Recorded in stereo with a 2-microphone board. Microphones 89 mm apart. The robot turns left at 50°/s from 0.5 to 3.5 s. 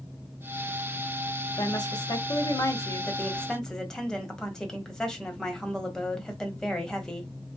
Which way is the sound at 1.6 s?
105° left.